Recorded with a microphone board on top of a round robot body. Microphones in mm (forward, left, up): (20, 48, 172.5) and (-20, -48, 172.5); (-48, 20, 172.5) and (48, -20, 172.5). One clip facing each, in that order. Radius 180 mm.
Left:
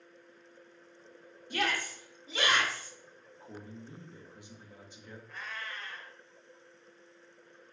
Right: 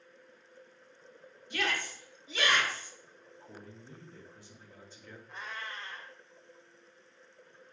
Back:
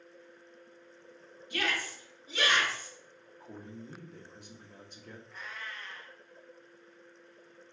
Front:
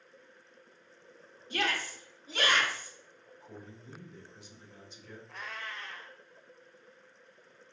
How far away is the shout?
About 1.7 m.